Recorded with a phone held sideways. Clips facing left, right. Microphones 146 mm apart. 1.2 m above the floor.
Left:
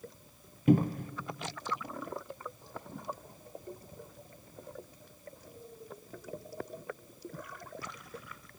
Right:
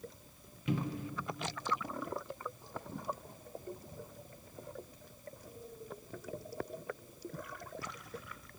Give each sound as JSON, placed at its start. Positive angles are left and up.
{"t": 0.7, "sound": "a cupboard door", "side_deg": 50, "distance_m": 0.8}